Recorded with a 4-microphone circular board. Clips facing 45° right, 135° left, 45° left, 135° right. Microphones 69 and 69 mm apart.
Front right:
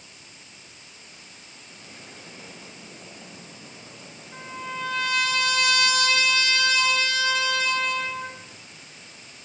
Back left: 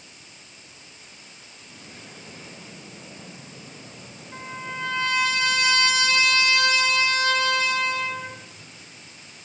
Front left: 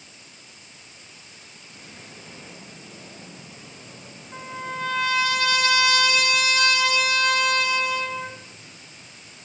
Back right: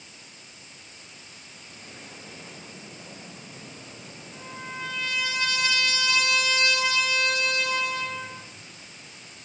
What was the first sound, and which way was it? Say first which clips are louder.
A trumpet: even, front left 6 dB; 80° left.